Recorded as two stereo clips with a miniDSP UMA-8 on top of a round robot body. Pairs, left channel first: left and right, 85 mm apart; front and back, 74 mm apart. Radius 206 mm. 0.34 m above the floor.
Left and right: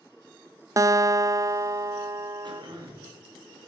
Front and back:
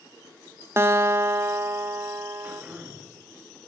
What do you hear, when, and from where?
0.8 s a guitar: 130° right, 0.7 m
2.4 s throat clearing: 110° right, 2.5 m